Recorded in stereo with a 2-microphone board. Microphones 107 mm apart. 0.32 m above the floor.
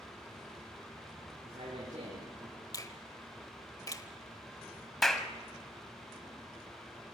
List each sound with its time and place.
1.4 s a man speaking: 60° right (ahead or behind), 5 m; by 2.6 s 65° right (ahead or behind), 5 m
2.7 s a finger snap: 35° left (ahead or behind), 1.0 m
5.0 s a clap: 5° left (ahead or behind), 1.2 m